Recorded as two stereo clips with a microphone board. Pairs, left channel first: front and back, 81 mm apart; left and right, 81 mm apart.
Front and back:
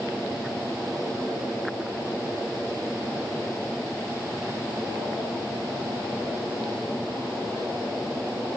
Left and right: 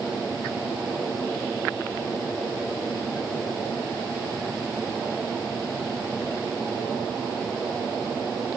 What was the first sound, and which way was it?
Only background noise.